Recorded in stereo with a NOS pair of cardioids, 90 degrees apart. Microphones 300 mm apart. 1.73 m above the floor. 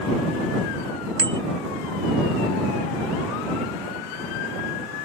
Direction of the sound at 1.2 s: 45° right.